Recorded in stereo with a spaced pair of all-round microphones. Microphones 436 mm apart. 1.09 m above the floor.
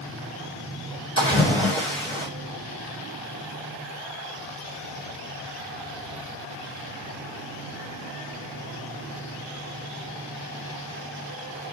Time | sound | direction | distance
1.2 | a splash | 30° left (ahead or behind) | 3 m